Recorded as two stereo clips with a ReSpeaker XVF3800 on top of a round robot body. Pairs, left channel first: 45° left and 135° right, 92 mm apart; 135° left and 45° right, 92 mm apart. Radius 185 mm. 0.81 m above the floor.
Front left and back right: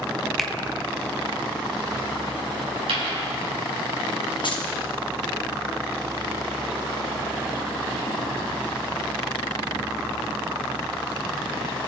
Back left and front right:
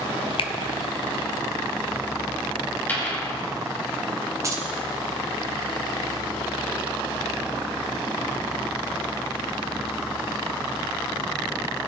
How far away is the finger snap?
About 1.1 m.